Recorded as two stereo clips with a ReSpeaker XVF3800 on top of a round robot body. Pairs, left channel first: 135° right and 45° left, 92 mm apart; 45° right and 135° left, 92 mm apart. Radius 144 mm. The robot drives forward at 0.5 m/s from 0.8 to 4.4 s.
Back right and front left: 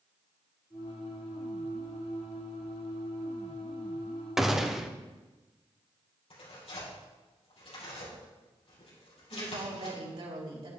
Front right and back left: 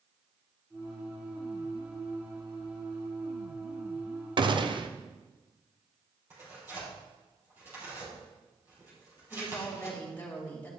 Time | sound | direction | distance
4.4 | a gunshot | 130° left | 1.1 m
6.3 | tearing paper | 155° right | 5 m
9.3 | a woman speaking | 25° left | 3.5 m